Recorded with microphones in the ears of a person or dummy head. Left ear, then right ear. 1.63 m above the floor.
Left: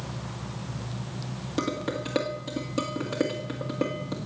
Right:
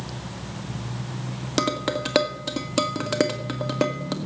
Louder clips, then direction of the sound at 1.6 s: Right 6 dB; 40° right (ahead or behind).